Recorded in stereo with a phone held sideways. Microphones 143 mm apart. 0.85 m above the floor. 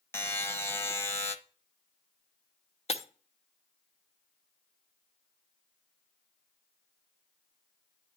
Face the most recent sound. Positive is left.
turn(degrees=45)  # may be behind; listen again after turning